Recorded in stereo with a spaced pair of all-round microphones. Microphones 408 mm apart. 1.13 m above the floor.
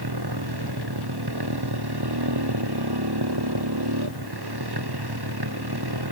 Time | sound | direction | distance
0.0 | a motorcycle | 70° right (ahead or behind) | ?